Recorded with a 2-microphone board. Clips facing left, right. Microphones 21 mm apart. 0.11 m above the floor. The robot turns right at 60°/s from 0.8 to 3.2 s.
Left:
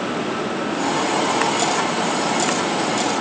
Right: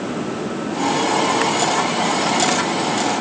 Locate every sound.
Only background noise.